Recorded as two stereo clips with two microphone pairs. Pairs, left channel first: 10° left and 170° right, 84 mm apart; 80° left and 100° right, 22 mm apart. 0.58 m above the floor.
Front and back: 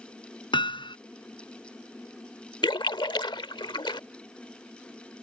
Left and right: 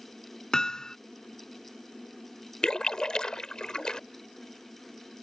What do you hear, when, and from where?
0.5 s hammering: 15° left
2.6 s a splash: 25° left